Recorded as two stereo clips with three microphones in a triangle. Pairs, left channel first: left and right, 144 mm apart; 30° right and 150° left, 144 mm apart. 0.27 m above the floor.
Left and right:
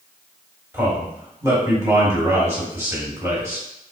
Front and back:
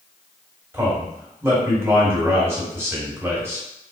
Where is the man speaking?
150° right, 1.6 m.